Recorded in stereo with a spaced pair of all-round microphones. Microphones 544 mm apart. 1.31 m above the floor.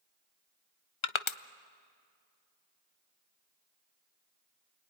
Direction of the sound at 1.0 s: 60° left (ahead or behind).